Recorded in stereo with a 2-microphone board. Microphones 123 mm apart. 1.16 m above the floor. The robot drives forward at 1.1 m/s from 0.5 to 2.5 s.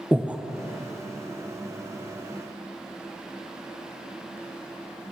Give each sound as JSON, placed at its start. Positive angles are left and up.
{"t": 0.1, "sound": "breathing", "side_deg": -10, "distance_m": 0.6}